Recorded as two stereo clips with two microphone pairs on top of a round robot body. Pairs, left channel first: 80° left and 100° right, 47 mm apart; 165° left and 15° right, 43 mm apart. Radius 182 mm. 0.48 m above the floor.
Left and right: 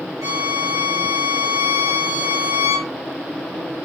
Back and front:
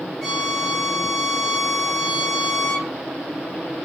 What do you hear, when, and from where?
0.2 s a violin: 110° right, 2.5 m